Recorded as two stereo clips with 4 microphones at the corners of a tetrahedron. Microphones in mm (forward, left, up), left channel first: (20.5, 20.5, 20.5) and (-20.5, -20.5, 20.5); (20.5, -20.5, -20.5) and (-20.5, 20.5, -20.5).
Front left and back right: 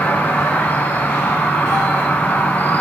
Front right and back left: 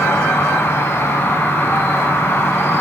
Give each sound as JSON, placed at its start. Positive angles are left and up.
{"t": 0.0, "sound": "an insect", "azimuth_deg": -10, "distance_m": 2.5}